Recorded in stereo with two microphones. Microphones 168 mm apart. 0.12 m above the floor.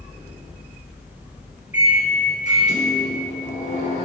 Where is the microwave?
45° left (ahead or behind), 1.5 m.